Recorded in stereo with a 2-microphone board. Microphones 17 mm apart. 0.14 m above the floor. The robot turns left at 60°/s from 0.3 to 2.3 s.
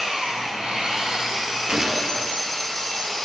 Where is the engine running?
80° right, 4.5 m; by 3.2 s 160° left, 4.5 m.